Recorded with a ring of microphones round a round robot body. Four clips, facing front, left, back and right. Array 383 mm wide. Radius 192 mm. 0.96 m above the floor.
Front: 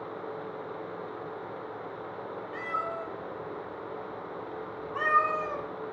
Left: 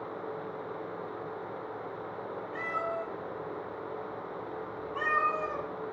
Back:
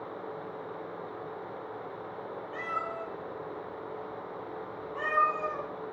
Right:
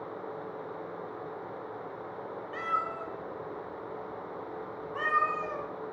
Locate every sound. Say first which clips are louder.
2.5 s a cat meowing: right 1 dB, front 2 dB; 85° right, 1.8 m; by 5.7 s 5° left, 1.8 m